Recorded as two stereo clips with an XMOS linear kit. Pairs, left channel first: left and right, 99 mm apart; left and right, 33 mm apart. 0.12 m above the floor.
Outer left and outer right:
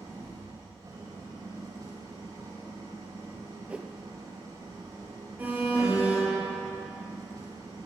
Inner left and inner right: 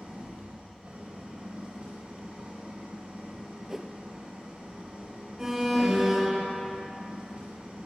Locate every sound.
0.0 s an engine running: 40° right (ahead or behind), 4.5 m
3.7 s a whoosh: 10° right (ahead or behind), 0.5 m
5.4 s an alarm: 15° right (ahead or behind), 2.5 m